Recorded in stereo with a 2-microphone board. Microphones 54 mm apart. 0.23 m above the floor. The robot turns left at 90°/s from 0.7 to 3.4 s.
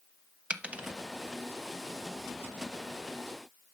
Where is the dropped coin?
25° right (ahead or behind), 0.6 m.